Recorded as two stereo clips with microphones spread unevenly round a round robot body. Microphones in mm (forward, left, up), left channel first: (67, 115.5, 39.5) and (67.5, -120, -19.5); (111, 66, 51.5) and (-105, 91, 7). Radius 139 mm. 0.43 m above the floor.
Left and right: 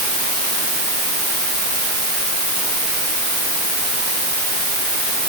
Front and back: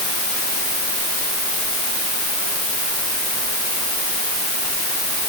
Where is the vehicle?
I don't hear a vehicle.